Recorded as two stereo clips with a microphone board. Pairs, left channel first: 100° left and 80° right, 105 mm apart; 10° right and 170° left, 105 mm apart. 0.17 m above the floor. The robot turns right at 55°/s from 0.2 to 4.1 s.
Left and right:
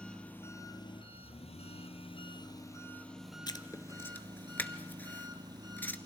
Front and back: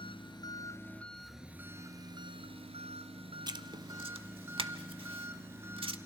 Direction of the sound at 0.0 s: 20° left.